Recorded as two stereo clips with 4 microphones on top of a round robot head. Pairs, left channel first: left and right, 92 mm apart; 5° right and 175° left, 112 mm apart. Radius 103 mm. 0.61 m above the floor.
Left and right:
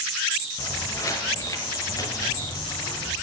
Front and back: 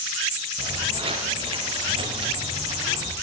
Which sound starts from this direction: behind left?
Footsteps, at 0.6 s.